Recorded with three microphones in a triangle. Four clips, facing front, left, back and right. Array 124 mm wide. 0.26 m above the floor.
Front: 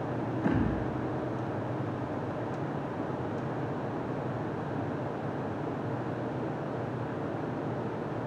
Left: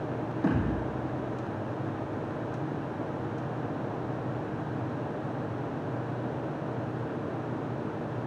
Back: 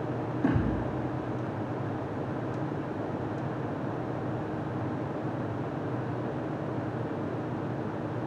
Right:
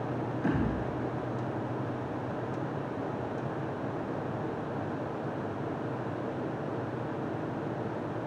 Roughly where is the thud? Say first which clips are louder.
Left 2 dB, back 2 dB; left.